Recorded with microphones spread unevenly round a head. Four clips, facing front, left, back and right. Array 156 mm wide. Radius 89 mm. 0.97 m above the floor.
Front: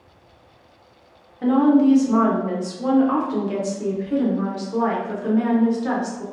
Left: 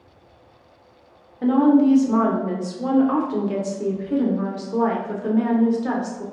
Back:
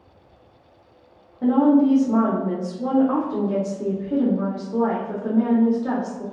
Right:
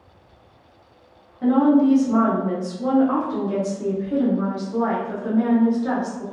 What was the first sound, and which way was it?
A woman speaking, 120° left.